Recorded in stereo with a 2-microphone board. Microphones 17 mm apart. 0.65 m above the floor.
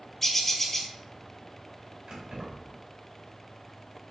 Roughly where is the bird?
Centre.